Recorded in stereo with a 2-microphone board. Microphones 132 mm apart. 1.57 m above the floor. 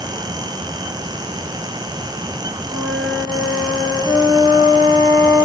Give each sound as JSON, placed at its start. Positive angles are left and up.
{"t": 2.7, "sound": "a flute", "side_deg": -15, "distance_m": 4.5}